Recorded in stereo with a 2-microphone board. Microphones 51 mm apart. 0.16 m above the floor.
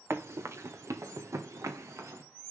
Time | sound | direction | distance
0.1 | running footsteps | 65° right (ahead or behind) | 1.5 m